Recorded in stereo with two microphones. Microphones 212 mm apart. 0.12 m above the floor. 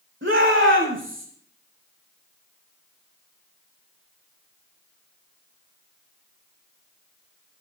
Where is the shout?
65° right (ahead or behind), 7 m.